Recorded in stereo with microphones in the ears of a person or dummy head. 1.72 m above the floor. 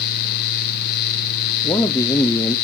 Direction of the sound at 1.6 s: 15° left (ahead or behind).